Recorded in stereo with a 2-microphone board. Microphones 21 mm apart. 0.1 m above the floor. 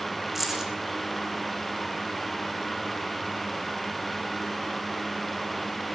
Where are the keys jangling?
20° right (ahead or behind), 5.5 m.